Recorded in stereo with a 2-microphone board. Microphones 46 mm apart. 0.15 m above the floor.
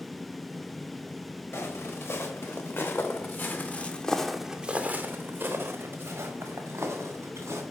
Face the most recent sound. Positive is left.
turn(degrees=-80)